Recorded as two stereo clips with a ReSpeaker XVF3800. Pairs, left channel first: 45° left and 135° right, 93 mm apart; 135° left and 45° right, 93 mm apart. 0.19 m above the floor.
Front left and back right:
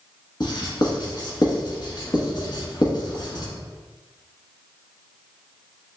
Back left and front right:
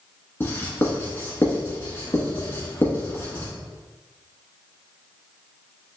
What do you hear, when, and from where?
0.4 s writing: 75° left, 1.1 m